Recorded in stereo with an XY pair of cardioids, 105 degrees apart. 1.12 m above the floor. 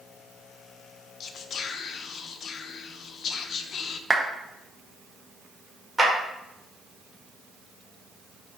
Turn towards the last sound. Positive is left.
turn(degrees=-5)